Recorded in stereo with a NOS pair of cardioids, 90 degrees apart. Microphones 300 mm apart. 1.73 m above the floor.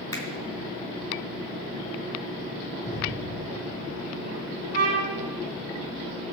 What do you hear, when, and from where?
0.1 s a finger snap: 10° left, 3.5 m
2.8 s an explosion: 65° right, 6 m
4.7 s a trumpet: 60° right, 2.5 m